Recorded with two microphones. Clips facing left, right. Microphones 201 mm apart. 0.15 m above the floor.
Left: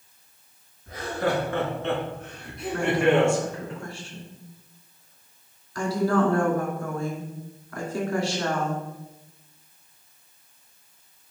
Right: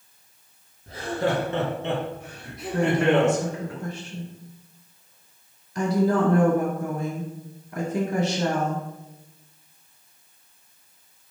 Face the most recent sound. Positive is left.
turn(degrees=-20)  # may be behind; listen again after turning